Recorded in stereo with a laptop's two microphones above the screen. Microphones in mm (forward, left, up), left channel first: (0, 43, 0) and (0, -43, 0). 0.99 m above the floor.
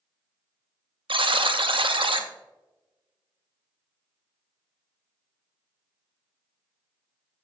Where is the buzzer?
75° right (ahead or behind), 0.6 m.